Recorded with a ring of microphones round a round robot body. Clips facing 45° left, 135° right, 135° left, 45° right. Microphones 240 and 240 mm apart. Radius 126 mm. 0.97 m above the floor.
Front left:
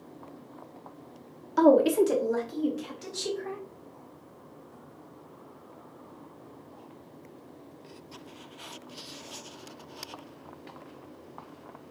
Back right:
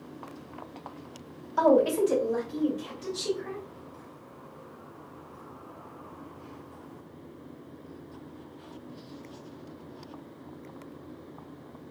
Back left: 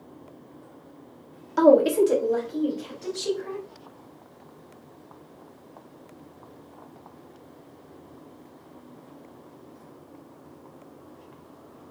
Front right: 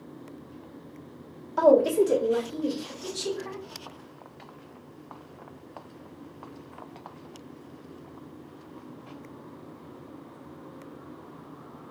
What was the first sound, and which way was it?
A woman speaking, 85° left.